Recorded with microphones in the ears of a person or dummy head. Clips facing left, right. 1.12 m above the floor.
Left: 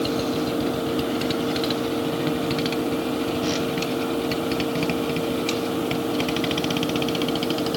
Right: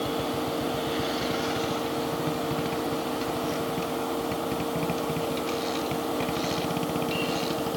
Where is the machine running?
25° left (ahead or behind).